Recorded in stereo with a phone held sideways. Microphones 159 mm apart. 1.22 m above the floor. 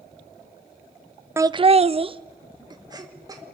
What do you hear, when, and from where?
1.4 s laughter: 15° right (ahead or behind), 0.6 m; by 3.5 s 20° right (ahead or behind), 2.5 m